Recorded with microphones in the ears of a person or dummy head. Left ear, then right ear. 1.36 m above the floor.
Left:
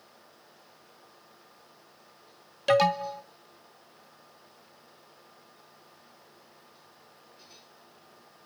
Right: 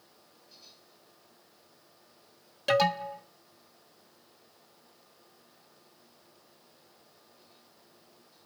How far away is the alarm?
About 0.5 m.